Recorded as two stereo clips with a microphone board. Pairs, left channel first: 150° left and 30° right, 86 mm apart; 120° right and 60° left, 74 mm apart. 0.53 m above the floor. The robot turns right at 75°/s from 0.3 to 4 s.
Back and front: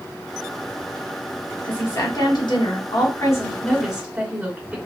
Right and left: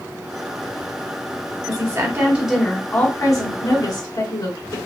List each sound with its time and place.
1.6 s a woman speaking: 80° left, 1.5 m; by 4.8 s 105° right, 1.5 m